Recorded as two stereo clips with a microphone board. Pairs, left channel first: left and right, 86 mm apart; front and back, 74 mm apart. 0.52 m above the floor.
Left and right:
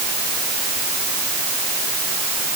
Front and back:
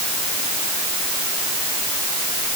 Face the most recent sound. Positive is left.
No sound to turn to.